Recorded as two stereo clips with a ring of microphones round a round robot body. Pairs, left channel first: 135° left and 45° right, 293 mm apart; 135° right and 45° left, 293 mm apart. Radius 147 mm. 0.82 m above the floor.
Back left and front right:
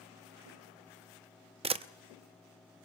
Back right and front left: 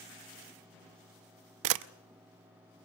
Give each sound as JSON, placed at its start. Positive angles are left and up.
{"t": 1.6, "sound": "a camera shutter", "azimuth_deg": 25, "distance_m": 0.8}